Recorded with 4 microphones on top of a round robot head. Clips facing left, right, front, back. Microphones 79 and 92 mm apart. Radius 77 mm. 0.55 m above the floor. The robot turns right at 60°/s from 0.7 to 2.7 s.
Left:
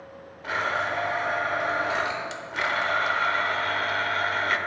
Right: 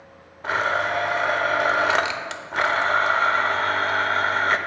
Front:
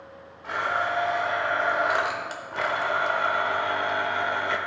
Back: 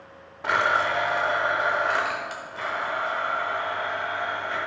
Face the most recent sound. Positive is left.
turn(degrees=-30)